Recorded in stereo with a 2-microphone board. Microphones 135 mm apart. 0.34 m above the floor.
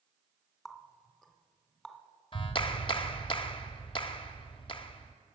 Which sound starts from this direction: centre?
A running tap, at 0.7 s.